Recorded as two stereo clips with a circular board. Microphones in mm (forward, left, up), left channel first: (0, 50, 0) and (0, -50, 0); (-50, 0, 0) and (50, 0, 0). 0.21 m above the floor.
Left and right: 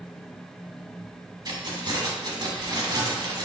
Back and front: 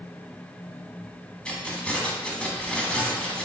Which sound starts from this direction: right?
Keys jangling, at 1.4 s.